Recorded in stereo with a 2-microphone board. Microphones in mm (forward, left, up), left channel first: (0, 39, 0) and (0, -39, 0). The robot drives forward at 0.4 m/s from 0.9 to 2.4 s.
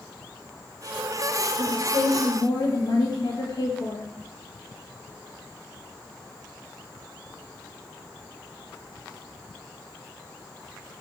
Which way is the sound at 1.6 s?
55° left (ahead or behind).